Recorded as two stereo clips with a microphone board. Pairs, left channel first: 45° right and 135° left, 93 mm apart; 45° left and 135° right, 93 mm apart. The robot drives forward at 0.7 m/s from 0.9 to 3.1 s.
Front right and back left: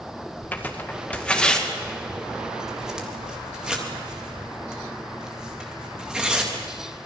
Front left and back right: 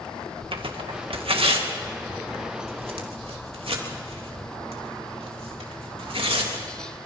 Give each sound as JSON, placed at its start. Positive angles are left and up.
{"t": 0.5, "sound": "tearing paper", "azimuth_deg": -115, "distance_m": 1.9}